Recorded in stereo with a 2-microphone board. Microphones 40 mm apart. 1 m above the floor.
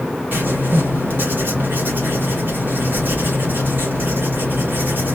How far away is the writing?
About 3.5 m.